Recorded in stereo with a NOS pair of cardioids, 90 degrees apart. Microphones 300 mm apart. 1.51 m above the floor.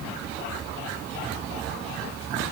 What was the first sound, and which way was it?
Only background noise.